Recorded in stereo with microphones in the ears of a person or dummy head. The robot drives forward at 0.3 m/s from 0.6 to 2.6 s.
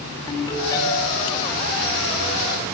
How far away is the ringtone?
About 10 m.